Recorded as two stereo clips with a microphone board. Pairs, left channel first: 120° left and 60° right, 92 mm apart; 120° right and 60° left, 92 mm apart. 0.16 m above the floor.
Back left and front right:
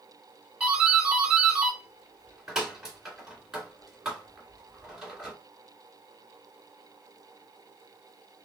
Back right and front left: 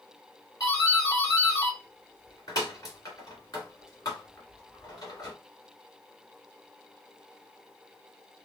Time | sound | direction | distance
0.6 | a doorbell | 140° right | 2 m